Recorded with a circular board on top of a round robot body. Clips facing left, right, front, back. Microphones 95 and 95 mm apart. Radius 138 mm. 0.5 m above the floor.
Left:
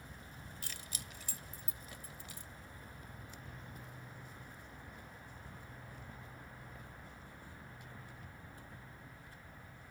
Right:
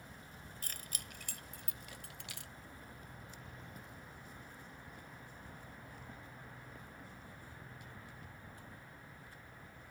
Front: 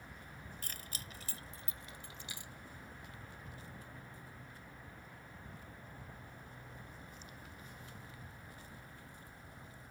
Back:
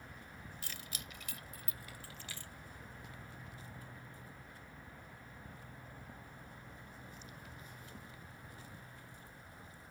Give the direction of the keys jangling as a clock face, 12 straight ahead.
2 o'clock.